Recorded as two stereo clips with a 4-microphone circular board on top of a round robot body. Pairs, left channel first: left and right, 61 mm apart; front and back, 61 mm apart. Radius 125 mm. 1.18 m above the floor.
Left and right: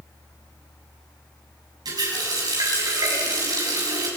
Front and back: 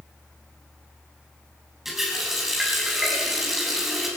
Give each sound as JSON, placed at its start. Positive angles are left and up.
{"t": 1.9, "sound": "a running tap", "azimuth_deg": -95, "distance_m": 7.5}